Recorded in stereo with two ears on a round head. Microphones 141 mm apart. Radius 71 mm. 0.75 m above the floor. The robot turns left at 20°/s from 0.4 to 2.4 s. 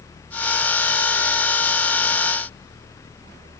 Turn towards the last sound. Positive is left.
No sound to turn to.